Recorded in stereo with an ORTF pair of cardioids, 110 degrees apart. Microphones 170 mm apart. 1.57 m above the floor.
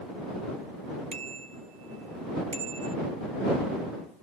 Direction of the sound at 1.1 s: 40° right.